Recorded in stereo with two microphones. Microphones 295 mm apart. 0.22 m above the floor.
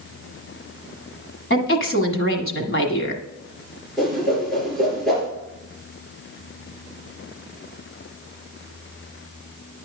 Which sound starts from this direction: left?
A woman speaking, at 1.5 s.